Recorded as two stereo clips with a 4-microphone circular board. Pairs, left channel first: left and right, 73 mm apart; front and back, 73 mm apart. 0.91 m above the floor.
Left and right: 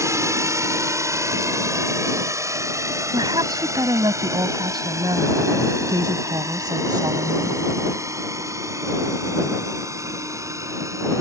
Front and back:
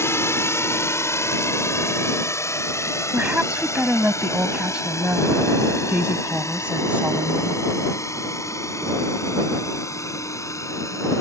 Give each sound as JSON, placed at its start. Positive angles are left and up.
{"t": 0.0, "sound": "a drone", "azimuth_deg": -50}
{"t": 3.1, "sound": "a woman speaking", "azimuth_deg": -105}